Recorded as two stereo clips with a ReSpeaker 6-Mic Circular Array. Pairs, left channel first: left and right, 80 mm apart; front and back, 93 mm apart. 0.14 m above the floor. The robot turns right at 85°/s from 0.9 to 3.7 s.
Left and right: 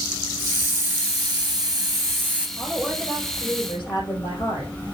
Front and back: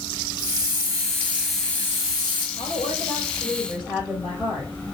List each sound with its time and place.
0.4 s a hiss: 145° right, 3 m; by 2.5 s 10° right, 3 m
2.6 s a woman speaking: 15° right, 5 m; by 4.7 s 85° left, 5 m